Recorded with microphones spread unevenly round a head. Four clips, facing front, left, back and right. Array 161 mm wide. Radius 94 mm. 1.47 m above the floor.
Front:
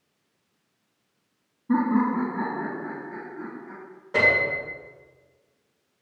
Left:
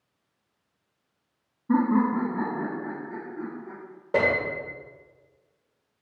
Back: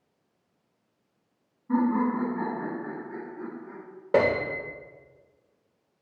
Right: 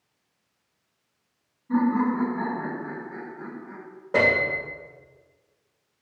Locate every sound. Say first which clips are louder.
1.7 s laughter: left 1 dB, front 2 dB; 60° left, 2.5 m; by 3.8 s 95° left, 3 m
4.1 s a piano: right 2 dB, back 1 dB; 170° left, 1.5 m